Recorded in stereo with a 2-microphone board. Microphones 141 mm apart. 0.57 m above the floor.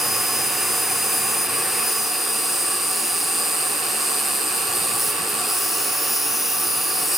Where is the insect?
Centre (ahead or behind), 1.7 m.